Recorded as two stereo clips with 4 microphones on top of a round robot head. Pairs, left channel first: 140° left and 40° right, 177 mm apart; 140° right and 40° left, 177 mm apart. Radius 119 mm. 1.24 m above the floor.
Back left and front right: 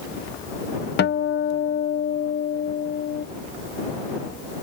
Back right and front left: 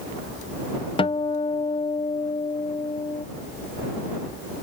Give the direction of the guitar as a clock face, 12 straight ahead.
7 o'clock.